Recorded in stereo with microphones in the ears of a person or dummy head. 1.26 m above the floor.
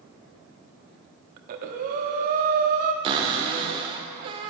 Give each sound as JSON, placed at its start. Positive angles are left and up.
{"t": 1.4, "sound": "breathing", "side_deg": -50, "distance_m": 1.1}
{"t": 3.0, "sound": "a cupboard door", "side_deg": -30, "distance_m": 1.1}